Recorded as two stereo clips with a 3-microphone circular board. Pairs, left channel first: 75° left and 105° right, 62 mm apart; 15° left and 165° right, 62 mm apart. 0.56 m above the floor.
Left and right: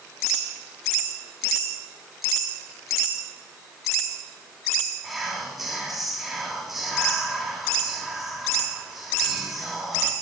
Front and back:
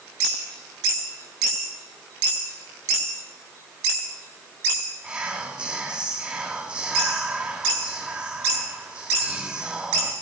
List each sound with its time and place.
5.0 s whispering: 175° left, 1.3 m